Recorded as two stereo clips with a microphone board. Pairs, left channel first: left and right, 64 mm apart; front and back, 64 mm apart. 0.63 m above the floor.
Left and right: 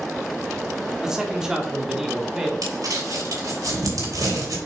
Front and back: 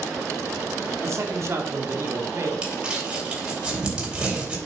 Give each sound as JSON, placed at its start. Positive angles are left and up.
{"t": 1.0, "sound": "a man speaking", "azimuth_deg": -165, "distance_m": 1.6}
{"t": 2.6, "sound": "crumpling", "azimuth_deg": -110, "distance_m": 3.0}